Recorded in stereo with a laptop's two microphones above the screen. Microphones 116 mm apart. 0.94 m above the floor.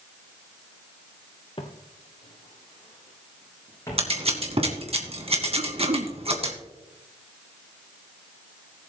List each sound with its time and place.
1.6 s footsteps: 40° left (ahead or behind), 1.2 m; by 4.2 s 25° left (ahead or behind), 3.5 m
4.0 s scissors: 55° right (ahead or behind), 1.9 m
5.6 s throat clearing: 60° right (ahead or behind), 0.6 m